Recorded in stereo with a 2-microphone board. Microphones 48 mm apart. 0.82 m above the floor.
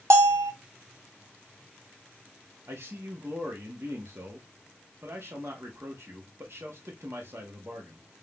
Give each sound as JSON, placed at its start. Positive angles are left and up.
{"t": 0.1, "sound": "a bell", "side_deg": -80, "distance_m": 0.9}
{"t": 2.7, "sound": "a man speaking", "side_deg": -60, "distance_m": 1.0}